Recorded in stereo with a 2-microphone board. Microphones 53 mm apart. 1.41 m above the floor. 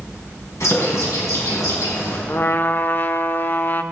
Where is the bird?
70° left (ahead or behind), 3.5 m.